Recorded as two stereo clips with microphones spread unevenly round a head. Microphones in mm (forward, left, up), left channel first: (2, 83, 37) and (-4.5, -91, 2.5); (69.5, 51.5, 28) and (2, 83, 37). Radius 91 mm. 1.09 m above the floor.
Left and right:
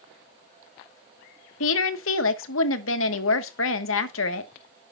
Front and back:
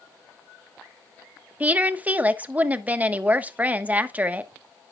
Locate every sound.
1.6 s a woman speaking: 85° left, 1.4 m